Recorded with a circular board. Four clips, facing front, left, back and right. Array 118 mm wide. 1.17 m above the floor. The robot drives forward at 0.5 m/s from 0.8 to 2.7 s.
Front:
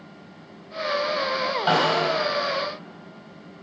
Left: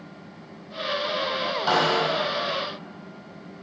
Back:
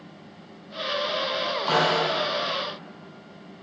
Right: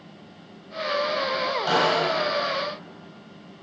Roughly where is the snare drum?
Ahead.